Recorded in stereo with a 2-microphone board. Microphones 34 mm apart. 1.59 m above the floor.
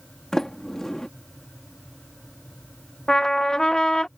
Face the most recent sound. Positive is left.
turn(degrees=15)  # may be behind; listen again after turning